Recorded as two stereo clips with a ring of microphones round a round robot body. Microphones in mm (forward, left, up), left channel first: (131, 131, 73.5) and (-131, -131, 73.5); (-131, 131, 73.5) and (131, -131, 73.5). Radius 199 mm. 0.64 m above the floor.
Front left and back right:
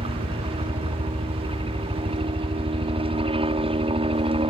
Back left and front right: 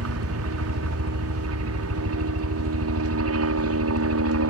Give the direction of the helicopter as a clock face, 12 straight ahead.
2 o'clock.